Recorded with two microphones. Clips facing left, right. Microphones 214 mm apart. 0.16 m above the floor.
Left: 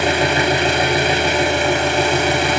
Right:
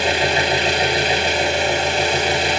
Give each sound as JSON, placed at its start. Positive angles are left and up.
{"t": 0.0, "sound": "an engine running", "side_deg": 55, "distance_m": 1.2}